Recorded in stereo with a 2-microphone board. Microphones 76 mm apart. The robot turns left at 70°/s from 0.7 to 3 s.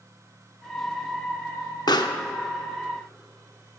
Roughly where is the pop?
Left.